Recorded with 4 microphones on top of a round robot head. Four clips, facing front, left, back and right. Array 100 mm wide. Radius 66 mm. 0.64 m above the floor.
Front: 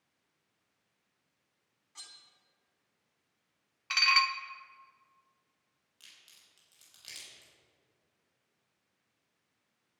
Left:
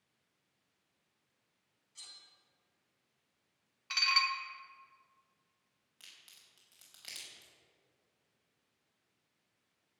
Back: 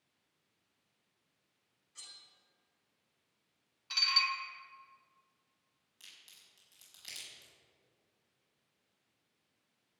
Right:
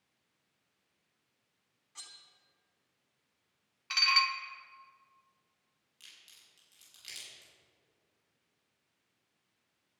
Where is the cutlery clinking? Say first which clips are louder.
Right 5 dB, front 4 dB; 40° right, 3 m.